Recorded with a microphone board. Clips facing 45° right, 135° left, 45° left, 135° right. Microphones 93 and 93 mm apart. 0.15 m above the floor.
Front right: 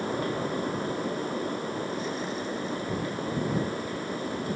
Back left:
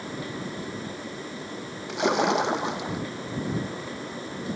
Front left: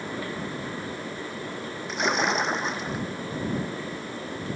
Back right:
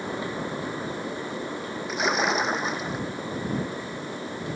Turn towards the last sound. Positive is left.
turn(degrees=140)